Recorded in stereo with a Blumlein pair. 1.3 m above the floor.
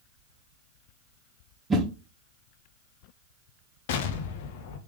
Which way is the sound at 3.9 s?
50° left.